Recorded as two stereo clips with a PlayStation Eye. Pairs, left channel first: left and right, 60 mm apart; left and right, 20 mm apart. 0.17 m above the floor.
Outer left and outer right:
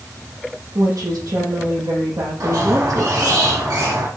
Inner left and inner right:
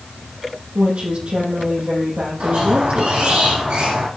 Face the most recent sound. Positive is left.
turn(degrees=-80)